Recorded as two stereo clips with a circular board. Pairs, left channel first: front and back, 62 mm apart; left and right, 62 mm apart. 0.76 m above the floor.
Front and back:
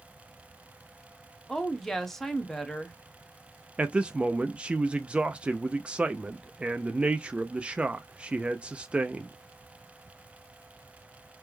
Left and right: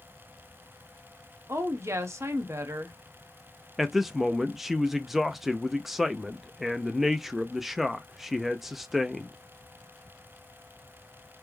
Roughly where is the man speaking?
Behind.